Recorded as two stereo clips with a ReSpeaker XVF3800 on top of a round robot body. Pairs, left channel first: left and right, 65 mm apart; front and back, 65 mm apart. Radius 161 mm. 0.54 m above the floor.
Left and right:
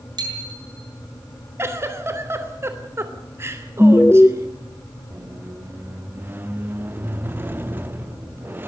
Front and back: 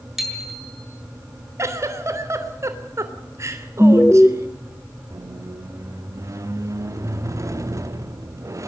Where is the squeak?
145° right, 1.2 m.